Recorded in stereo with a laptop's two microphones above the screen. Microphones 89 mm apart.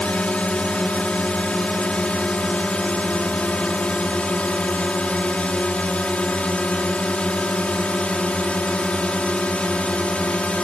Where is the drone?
15° left (ahead or behind).